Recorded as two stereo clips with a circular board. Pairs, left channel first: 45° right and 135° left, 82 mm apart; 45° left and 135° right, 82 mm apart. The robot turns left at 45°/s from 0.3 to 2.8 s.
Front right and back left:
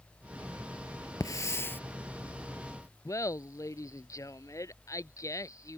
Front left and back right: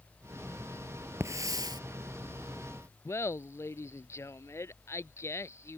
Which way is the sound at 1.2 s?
85° right.